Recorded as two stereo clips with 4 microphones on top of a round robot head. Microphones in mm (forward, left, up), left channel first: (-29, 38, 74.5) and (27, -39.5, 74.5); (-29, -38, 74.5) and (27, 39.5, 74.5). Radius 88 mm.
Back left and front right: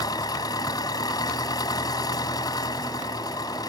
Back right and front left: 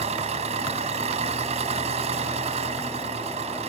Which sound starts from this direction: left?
An engine running, at 0.0 s.